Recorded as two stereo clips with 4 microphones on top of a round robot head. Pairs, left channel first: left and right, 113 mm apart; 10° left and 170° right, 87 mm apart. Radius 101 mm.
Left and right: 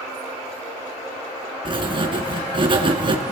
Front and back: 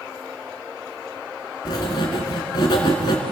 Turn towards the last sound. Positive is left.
turn(degrees=-45)